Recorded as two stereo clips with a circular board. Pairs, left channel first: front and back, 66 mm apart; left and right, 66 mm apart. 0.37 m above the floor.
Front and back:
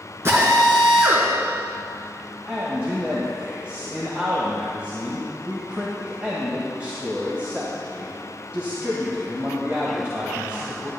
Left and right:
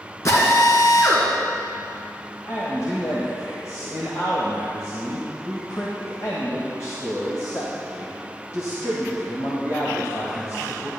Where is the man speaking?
115° left, 1.7 m.